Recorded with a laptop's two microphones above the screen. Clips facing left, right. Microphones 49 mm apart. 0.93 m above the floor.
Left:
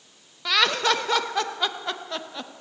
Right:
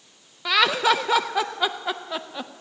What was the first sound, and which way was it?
Laughter, 10° right (ahead or behind).